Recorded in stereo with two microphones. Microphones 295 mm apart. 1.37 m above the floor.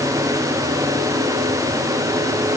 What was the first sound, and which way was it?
Only background noise.